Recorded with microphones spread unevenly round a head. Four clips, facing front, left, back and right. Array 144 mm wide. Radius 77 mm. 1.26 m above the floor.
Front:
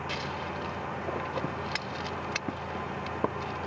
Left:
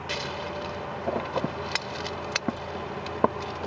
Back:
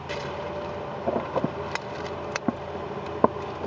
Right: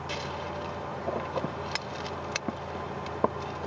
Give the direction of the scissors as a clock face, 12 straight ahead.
6 o'clock.